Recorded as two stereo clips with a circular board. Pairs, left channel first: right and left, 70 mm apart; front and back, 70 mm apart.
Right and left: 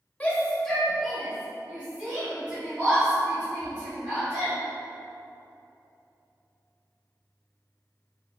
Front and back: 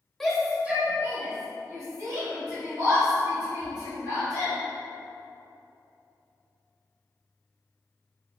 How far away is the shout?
About 0.9 m.